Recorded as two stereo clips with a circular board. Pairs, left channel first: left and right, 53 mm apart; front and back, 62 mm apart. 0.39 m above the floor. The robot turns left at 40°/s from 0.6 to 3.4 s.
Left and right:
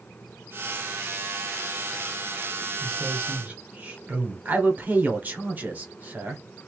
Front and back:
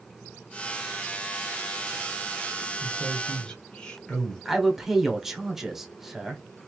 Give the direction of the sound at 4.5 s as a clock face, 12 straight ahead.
3 o'clock.